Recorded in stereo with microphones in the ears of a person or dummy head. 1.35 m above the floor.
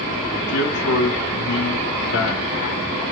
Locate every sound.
0.5 s a man speaking: 80° left, 1.3 m